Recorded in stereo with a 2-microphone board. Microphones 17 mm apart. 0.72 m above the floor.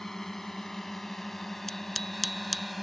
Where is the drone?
25° left (ahead or behind); by 2.8 s centre (ahead or behind).